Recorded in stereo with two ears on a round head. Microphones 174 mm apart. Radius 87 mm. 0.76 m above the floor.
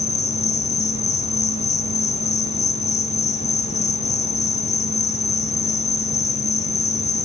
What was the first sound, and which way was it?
An insect, 35° left (ahead or behind).